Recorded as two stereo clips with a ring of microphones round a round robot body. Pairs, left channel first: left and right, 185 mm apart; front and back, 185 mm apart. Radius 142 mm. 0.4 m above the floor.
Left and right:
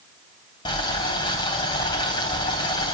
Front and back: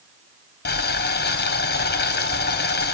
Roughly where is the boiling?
Ahead.